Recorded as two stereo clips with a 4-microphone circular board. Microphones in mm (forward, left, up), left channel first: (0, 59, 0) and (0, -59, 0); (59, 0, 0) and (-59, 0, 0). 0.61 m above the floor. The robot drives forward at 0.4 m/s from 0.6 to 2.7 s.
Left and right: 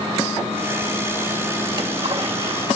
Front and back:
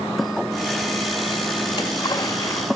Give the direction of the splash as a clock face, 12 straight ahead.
2 o'clock.